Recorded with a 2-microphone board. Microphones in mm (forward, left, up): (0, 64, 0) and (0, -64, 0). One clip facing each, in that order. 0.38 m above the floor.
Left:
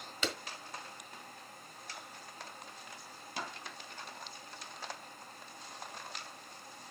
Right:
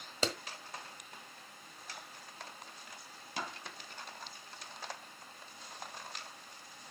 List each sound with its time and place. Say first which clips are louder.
0.2 s a clap: right 3 dB; 40° right (ahead or behind), 1.5 m